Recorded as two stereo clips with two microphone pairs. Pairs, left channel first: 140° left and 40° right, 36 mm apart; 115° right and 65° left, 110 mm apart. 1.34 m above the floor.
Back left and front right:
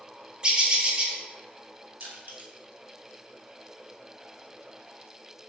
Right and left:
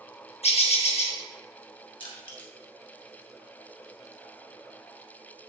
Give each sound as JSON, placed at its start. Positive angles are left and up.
{"t": 0.4, "sound": "a bird", "azimuth_deg": -105, "distance_m": 1.3}
{"t": 2.0, "sound": "crushing", "azimuth_deg": -75, "distance_m": 1.6}